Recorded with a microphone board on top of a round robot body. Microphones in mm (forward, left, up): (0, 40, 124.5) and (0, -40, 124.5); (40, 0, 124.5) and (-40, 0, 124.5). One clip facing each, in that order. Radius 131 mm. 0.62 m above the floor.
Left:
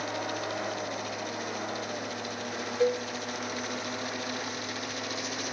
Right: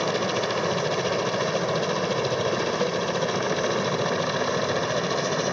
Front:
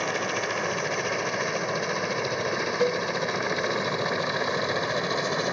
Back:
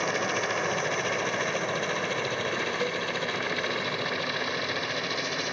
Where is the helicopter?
90° right; by 5.5 s 60° right.